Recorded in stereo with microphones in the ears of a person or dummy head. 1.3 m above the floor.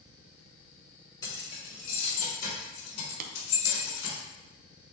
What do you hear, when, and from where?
1.2 s keys jangling: 20° left (ahead or behind), 2.5 m; by 4.2 s 70° left (ahead or behind), 3.5 m
3.2 s tapping: 50° right (ahead or behind), 0.7 m